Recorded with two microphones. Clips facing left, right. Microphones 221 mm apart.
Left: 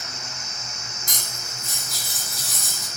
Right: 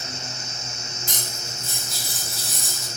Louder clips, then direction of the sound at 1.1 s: Right 3 dB; 25° right (ahead or behind).